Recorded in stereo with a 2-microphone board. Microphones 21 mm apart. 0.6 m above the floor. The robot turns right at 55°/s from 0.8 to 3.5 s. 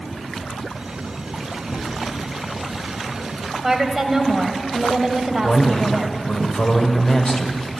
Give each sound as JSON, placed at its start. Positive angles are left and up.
{"t": 1.7, "sound": "a cupboard door", "side_deg": -35, "distance_m": 6.5}
{"t": 3.6, "sound": "a woman speaking", "side_deg": -15, "distance_m": 2.5}
{"t": 5.4, "sound": "a man speaking", "side_deg": 60, "distance_m": 1.9}